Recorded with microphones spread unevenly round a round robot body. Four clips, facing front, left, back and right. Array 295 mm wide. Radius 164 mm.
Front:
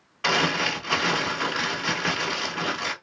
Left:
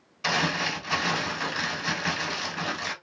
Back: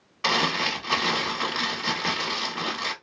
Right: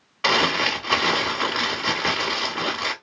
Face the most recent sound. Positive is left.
turn(degrees=-95)